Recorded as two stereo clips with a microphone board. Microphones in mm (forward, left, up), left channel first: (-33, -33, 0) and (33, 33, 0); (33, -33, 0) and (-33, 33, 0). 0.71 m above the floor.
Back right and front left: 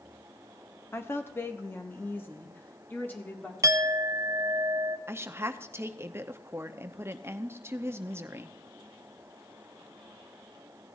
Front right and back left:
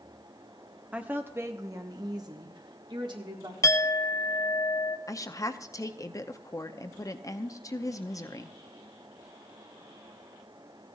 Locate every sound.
0.9 s a woman speaking: 165° right, 0.9 m; by 3.5 s 155° left, 1.8 m
3.6 s a clink: straight ahead, 0.6 m
5.1 s a woman speaking: 5° right, 0.7 m